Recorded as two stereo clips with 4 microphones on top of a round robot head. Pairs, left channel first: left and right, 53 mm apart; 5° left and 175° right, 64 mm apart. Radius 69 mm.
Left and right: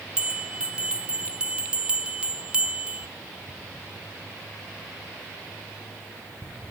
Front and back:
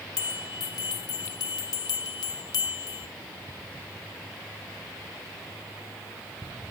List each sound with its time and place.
0.2 s a bell: 15° right, 2 m